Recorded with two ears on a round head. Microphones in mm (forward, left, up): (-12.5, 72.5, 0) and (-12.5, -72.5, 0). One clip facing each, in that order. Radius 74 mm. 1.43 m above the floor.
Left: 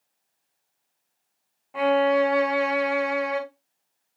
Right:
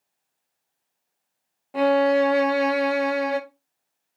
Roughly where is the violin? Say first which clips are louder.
Right 2 dB; right.